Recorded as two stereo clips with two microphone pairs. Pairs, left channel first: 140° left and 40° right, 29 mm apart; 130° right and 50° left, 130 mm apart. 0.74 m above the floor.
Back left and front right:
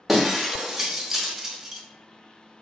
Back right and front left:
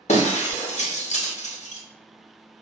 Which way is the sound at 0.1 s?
120° right.